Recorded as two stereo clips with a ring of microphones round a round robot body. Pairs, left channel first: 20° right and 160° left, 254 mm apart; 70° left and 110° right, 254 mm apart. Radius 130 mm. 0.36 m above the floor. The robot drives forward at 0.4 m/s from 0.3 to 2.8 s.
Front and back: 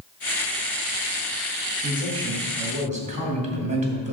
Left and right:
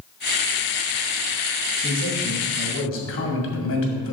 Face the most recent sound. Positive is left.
turn(degrees=95)